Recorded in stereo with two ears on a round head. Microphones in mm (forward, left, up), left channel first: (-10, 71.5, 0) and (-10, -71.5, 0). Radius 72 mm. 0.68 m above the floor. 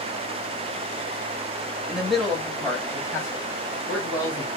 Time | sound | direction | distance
1.9 | a man speaking | 5° right (ahead or behind) | 0.9 m